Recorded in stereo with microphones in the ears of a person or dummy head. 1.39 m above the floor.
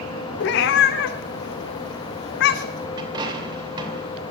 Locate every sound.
0.4 s a cat meowing: 55° left (ahead or behind), 1.0 m
3.0 s a dropped coin: 25° right (ahead or behind), 3 m